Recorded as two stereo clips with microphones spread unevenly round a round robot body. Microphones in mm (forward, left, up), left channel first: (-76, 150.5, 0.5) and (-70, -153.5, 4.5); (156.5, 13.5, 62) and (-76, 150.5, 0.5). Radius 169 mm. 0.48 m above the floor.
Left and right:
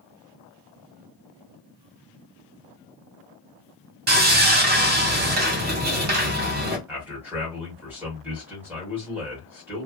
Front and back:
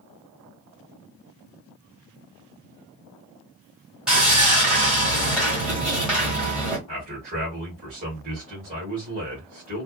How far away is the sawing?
About 1.3 m.